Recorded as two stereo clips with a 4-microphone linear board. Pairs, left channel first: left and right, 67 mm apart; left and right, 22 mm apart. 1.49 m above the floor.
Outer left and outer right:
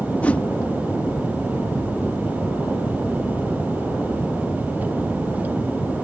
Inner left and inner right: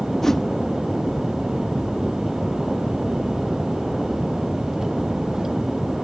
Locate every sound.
0.2 s a whoosh: 20° left (ahead or behind)